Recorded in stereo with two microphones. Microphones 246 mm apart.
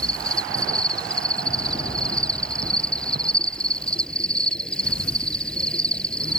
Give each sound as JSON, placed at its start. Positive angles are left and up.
{"t": 0.0, "sound": "an insect", "side_deg": 5}